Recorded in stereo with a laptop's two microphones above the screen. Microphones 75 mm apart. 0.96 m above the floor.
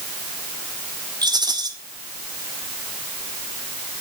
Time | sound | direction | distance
1.2 | a rattle | 65° right (ahead or behind) | 2.5 m